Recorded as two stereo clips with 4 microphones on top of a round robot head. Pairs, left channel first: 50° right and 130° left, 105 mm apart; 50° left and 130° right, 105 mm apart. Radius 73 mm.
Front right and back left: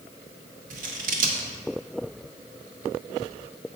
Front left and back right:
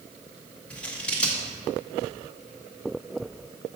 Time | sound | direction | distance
0.7 | scissors | 125° left | 1.0 m